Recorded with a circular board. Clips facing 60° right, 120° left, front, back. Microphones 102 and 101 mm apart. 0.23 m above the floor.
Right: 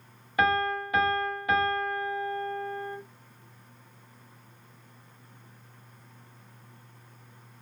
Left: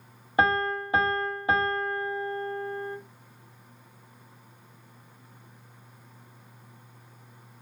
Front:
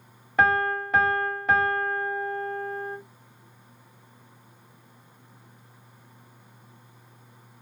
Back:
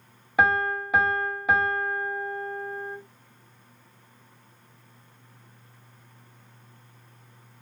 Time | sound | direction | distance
0.4 | a piano | 100° left | 0.7 m